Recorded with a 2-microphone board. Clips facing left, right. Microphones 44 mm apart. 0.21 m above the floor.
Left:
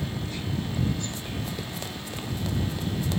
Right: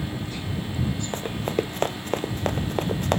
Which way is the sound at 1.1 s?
45° right (ahead or behind).